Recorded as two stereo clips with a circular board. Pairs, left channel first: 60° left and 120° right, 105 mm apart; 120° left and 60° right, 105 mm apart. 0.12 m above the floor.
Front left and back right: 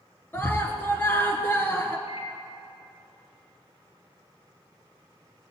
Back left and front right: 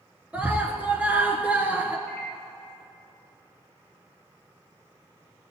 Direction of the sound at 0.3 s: 5° left.